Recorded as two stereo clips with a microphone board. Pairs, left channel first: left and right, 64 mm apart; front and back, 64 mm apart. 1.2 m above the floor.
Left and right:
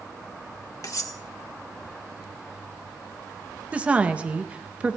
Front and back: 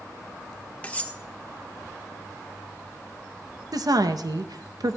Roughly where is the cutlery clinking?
Ahead left.